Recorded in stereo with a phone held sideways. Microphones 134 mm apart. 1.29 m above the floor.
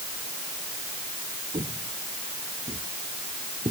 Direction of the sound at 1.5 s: 55° right (ahead or behind).